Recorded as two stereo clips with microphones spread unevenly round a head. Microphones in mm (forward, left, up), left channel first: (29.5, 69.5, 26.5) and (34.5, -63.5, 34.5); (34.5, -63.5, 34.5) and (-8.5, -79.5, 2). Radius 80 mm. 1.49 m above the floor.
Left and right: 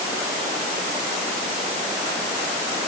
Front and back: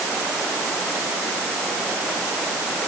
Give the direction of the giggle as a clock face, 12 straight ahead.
No giggle in this recording.